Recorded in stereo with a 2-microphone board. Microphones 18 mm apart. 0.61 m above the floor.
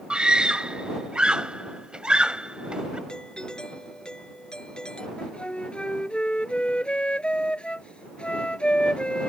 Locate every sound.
0.1 s a scream: 60° right (ahead or behind)
3.1 s a doorbell: 55° left (ahead or behind)
5.2 s a flute: 70° left (ahead or behind)